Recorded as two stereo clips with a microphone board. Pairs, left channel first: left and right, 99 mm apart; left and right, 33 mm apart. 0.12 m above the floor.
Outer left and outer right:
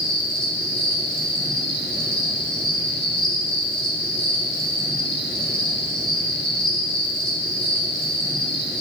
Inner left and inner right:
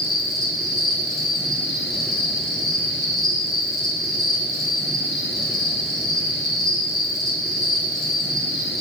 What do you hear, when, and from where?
0.0 s an insect: 5° left (ahead or behind), 1.6 m